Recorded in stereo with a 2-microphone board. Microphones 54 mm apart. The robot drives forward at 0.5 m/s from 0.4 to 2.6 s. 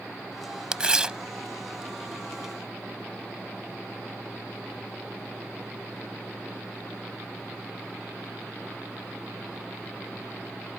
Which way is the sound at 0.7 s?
15° right (ahead or behind).